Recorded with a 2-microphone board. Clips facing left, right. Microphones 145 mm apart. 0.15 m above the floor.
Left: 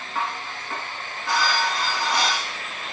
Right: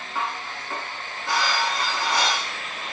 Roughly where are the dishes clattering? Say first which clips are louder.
Left 1 dB; centre.